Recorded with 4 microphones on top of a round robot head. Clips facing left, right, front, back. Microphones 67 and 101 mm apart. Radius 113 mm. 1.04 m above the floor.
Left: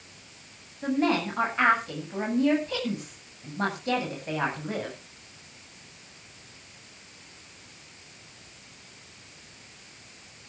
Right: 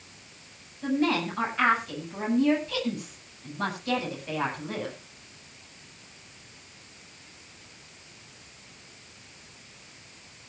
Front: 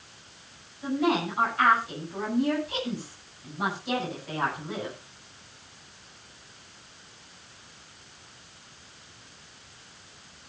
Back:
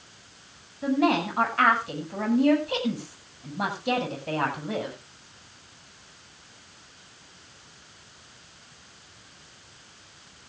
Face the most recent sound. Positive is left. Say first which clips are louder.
# left 1 dB, back 3 dB
turn(degrees=155)